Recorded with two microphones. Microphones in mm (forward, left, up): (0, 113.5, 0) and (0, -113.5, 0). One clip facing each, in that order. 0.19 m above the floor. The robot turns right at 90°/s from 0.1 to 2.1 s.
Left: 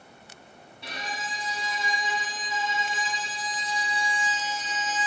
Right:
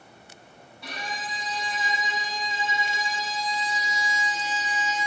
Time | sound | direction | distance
0.8 | a violin | 25° left (ahead or behind) | 0.9 m